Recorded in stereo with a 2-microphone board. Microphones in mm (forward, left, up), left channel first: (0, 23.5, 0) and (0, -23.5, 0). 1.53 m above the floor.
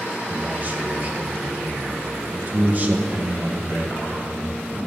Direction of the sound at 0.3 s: 35° right (ahead or behind).